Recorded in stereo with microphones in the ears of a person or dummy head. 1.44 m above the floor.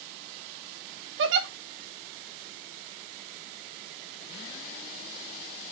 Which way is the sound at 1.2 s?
75° right (ahead or behind).